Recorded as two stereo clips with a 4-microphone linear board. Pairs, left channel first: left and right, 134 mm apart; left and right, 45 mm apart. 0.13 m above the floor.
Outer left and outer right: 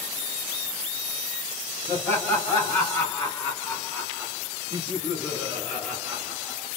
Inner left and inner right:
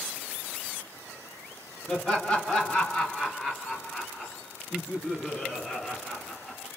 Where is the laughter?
20° left (ahead or behind), 1.8 m; by 6.7 s 5° left (ahead or behind), 2 m.